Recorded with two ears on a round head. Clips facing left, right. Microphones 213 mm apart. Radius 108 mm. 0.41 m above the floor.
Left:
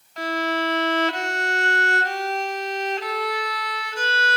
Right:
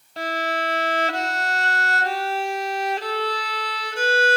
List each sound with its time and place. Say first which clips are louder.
0.2 s a violin: left 2 dB; 30° right (ahead or behind), 2.5 m